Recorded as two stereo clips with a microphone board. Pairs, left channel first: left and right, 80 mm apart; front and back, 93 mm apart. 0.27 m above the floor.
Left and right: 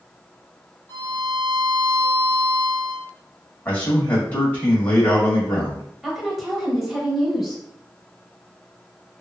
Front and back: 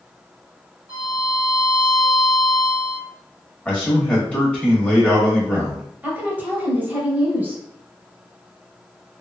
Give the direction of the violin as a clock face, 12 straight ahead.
8 o'clock.